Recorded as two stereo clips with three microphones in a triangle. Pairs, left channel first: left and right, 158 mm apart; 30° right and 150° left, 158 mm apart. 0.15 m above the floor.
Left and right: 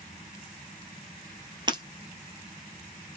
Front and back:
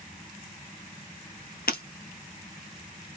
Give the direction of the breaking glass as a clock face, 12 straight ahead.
1 o'clock.